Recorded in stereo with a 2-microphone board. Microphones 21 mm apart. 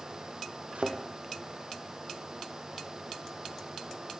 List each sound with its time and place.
0.8 s a thud: 75° right (ahead or behind), 2.5 m